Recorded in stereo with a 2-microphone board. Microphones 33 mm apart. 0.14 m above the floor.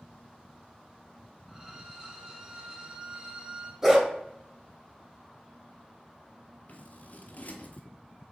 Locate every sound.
1.5 s a violin: 20° right (ahead or behind), 0.8 m
3.8 s a dog barking: 10° right (ahead or behind), 0.8 m
6.7 s scissors: 50° left (ahead or behind), 0.6 m